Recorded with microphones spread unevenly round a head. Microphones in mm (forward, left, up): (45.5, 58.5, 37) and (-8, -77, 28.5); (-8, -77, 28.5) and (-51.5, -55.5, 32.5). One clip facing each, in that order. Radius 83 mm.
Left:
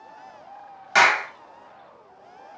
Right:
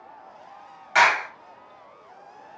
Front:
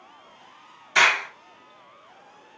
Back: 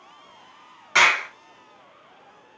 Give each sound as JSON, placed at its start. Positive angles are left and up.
{"t": 0.9, "sound": "a clap", "azimuth_deg": 115, "distance_m": 1.2}